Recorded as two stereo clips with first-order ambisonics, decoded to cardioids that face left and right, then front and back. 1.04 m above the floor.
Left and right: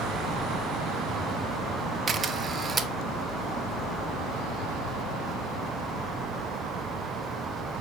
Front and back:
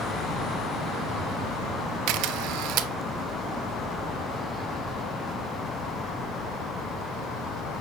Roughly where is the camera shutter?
Behind.